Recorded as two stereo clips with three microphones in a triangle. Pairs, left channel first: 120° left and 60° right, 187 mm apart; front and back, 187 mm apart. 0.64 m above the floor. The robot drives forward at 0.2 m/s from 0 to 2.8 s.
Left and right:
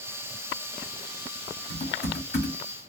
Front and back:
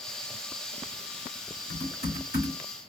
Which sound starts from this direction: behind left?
Typing on a keyboard, at 1.7 s.